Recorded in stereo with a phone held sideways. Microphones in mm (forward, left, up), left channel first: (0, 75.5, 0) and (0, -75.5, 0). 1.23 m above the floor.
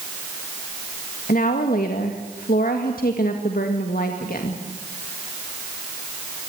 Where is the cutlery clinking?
No cutlery clinking in this recording.